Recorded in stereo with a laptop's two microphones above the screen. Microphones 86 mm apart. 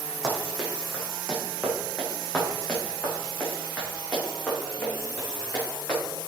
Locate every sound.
0.2 s running footsteps: centre (ahead or behind), 2.5 m; by 6.0 s 20° left (ahead or behind), 5 m